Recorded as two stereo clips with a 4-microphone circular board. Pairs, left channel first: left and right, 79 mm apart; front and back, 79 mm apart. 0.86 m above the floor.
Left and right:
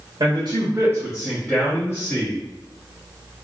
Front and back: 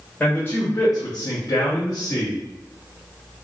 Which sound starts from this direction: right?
A man speaking, at 0.2 s.